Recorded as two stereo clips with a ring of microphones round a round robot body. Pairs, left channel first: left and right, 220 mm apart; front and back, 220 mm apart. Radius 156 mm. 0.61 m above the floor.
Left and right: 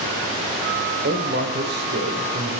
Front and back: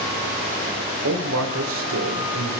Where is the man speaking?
145° right, 2.0 m.